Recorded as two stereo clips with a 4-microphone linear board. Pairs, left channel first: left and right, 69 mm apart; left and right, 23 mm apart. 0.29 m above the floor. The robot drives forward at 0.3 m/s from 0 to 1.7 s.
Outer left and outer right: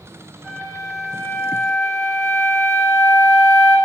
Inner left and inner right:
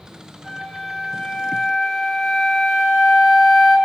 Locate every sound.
0.4 s a flute: 5° left (ahead or behind), 2 m